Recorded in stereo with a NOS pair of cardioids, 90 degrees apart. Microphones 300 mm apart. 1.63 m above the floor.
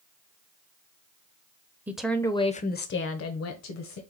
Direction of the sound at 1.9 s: 5° right.